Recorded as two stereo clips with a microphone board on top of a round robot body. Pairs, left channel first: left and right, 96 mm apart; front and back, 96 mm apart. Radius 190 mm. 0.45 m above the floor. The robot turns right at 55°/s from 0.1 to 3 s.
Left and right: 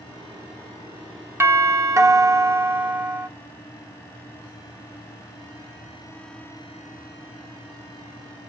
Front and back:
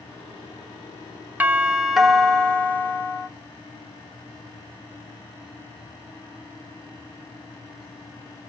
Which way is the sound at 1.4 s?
125° right.